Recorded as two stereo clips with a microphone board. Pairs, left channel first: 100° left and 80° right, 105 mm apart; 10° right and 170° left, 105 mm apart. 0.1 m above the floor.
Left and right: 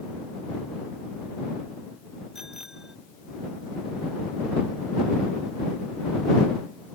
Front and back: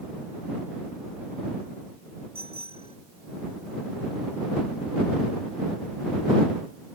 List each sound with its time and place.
2.4 s a bicycle bell: 165° right